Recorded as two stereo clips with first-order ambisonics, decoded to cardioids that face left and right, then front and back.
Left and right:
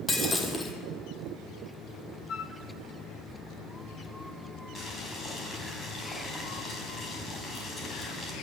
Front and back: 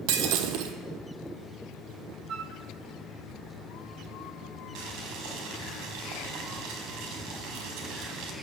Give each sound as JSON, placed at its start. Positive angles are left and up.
{"t": 0.1, "sound": "breaking glass", "azimuth_deg": 170, "distance_m": 2.0}
{"t": 2.3, "sound": "a flute", "azimuth_deg": 140, "distance_m": 1.3}
{"t": 4.8, "sound": "boiling", "azimuth_deg": 165, "distance_m": 4.5}